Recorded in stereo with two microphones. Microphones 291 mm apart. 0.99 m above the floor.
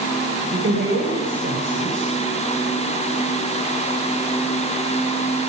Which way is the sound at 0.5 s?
40° right (ahead or behind).